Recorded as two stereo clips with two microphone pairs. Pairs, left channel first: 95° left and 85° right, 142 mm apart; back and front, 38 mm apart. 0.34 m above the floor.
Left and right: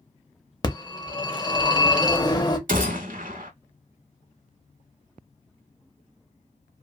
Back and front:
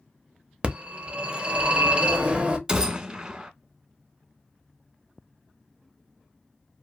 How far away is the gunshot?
About 0.5 m.